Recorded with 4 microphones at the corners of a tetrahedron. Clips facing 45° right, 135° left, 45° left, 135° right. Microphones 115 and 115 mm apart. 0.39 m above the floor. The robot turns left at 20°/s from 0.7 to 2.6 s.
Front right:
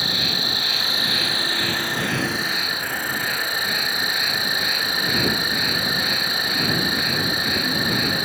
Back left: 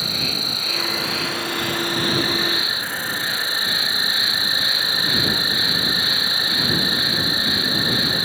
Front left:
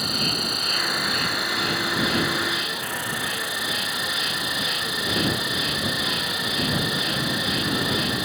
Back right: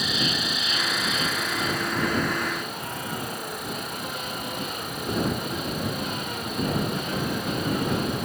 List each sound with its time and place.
0.0 s an insect: 90° left; by 8.2 s 50° left